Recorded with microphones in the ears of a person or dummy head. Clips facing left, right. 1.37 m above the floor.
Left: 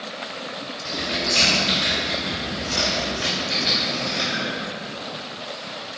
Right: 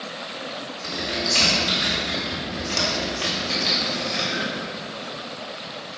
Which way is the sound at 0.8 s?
65° right (ahead or behind).